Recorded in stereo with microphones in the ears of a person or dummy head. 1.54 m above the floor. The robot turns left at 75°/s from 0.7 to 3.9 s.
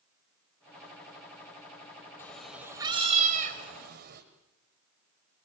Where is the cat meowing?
20° left, 1.8 m; by 4.2 s 110° right, 1.8 m.